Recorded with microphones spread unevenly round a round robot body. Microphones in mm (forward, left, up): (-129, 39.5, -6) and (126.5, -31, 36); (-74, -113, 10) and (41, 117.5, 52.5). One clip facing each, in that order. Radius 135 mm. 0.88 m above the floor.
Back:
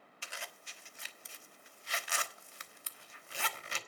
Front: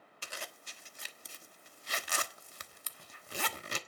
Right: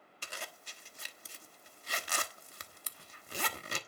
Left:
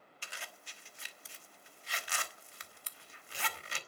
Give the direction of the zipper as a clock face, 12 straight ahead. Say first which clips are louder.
Front 3 dB, right 6 dB; 2 o'clock.